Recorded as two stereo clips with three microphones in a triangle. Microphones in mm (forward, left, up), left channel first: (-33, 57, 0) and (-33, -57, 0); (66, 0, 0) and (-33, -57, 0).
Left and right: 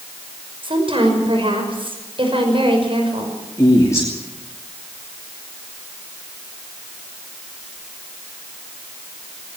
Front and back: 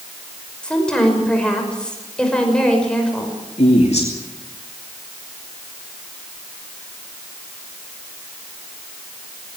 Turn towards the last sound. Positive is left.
turn(degrees=25)